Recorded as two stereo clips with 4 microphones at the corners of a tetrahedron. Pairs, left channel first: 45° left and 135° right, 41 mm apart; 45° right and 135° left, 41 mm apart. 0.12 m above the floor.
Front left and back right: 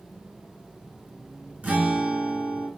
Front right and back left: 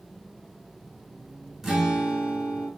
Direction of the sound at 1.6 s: 150° right.